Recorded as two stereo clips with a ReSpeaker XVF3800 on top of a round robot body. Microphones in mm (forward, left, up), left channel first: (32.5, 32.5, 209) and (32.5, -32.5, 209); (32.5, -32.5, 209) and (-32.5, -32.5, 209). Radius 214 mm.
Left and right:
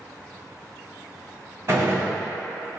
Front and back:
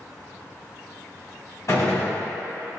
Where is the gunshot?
40° right, 1.7 m.